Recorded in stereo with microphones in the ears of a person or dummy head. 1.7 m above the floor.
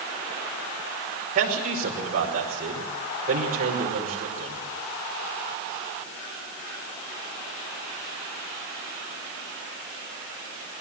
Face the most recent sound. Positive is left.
turn(degrees=-45)  # may be behind; listen again after turning